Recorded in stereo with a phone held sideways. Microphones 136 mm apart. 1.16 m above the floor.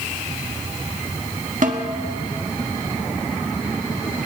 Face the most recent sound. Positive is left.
turn(degrees=-70)  # may be behind; listen again after turning